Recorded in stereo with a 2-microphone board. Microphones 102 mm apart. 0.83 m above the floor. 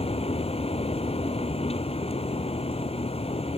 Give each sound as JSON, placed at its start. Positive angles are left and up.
{"t": 0.0, "sound": "a vehicle", "side_deg": 85}